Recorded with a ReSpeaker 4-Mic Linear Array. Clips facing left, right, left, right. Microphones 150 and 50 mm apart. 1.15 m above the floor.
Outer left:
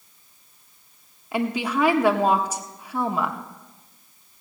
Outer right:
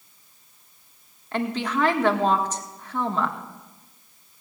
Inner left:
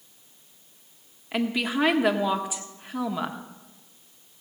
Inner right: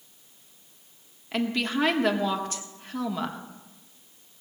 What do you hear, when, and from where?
1.3 s a woman speaking: 10° left (ahead or behind), 1.4 m